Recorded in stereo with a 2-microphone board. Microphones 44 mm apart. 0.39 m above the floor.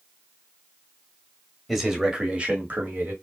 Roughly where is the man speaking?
Centre.